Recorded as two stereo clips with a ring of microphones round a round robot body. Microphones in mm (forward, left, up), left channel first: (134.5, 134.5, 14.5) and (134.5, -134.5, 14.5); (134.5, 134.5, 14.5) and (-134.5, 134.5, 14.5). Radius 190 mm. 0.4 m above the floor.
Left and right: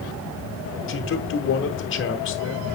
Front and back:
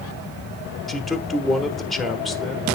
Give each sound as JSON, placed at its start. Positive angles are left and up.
{"t": 0.9, "sound": "a man speaking", "azimuth_deg": 90, "distance_m": 1.2}